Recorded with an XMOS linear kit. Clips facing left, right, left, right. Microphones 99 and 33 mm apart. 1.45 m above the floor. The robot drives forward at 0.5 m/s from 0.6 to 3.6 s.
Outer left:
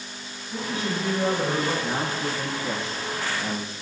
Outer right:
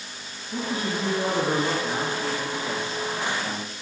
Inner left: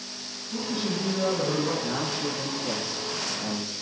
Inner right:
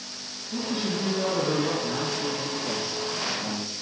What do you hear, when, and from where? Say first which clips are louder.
0.5 s a man speaking: outer right 1 dB, inner right 1 dB; 15° right (ahead or behind), 3 m; by 1.7 s 20° right (ahead or behind), 2.5 m
1.8 s a man speaking: even, inner right 1 dB; 35° left (ahead or behind), 1.2 m; by 3.7 s 20° left (ahead or behind), 2 m